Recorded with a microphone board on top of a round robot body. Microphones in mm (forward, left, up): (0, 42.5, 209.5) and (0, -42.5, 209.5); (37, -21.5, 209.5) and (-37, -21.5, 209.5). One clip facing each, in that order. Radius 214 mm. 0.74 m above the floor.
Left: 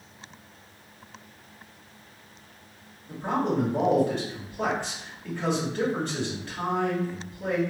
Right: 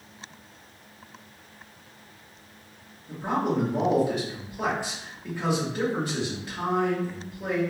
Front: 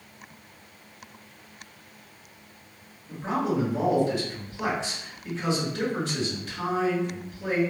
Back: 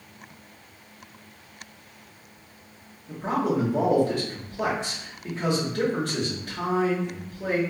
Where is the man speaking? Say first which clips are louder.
Even, back 2 dB; 170° right, 1.6 m.